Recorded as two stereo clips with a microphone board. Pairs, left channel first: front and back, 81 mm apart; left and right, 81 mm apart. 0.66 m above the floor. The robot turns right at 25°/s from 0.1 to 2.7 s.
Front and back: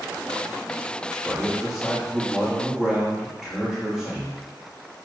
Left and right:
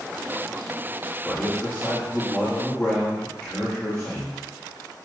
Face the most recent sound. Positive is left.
turn(degrees=110)